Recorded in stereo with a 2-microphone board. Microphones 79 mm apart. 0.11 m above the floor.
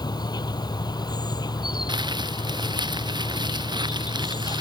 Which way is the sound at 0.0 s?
65° left (ahead or behind).